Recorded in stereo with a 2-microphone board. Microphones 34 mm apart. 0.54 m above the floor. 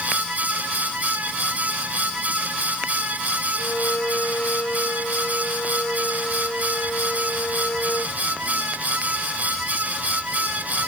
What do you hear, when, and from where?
3.6 s a violin: 40° left (ahead or behind)